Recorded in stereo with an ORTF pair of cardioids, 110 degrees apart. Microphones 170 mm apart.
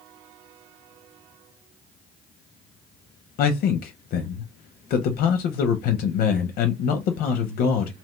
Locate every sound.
3.4 s a man speaking: 70° left, 0.6 m